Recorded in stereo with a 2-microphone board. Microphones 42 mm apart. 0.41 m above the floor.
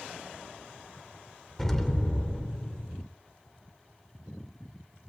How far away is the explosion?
About 0.7 m.